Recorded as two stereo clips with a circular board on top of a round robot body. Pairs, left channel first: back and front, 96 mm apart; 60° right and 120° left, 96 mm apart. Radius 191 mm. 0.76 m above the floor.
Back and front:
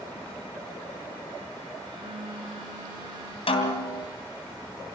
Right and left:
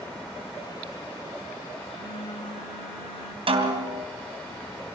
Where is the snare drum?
150° left, 3 m.